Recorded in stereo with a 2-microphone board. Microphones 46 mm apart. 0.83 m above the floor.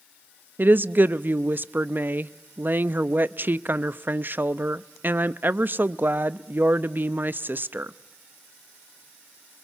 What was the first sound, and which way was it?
A woman speaking, 45° right (ahead or behind).